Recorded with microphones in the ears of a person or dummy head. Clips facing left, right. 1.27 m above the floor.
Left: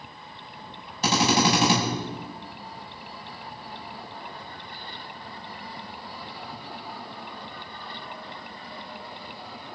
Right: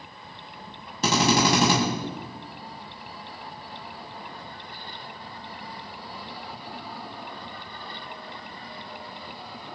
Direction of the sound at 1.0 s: 80° right.